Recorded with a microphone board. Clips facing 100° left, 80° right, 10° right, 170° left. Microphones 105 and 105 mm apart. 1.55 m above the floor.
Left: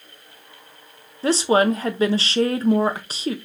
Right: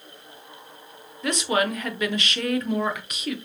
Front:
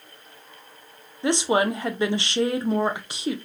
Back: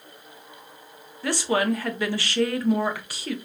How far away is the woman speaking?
About 0.6 m.